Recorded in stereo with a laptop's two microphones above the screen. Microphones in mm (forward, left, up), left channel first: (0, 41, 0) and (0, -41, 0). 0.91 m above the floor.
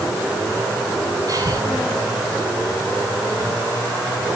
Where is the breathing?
45° right (ahead or behind), 6.5 m.